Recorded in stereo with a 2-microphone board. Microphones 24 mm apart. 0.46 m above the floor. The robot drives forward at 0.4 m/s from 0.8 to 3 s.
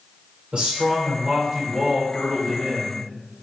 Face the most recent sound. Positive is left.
turn(degrees=-25)  # may be behind; listen again after turning